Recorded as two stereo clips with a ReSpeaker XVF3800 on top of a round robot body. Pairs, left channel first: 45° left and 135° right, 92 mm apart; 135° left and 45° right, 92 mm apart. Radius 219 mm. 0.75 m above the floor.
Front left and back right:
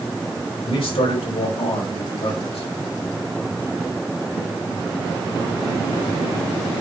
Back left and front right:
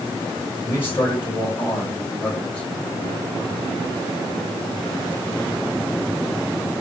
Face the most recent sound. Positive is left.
turn(degrees=55)